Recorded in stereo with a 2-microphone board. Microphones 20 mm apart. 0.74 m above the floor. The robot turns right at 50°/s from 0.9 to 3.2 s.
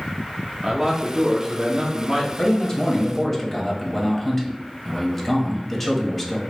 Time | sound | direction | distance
0.6 | a man speaking | 145° right | 0.9 m
2.4 | a man speaking | 135° left | 1.2 m